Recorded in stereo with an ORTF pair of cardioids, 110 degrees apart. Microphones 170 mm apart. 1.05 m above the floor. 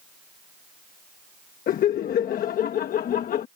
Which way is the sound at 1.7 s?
55° left.